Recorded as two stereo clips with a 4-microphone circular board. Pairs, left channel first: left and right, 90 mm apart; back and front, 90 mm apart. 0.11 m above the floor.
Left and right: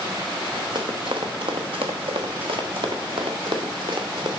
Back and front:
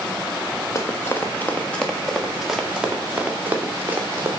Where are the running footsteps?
125° right, 1.2 m; by 4.3 s 65° right, 2 m.